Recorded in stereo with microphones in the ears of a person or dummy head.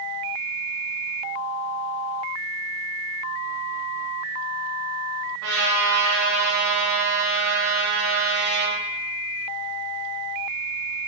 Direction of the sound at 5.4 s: 75° right (ahead or behind).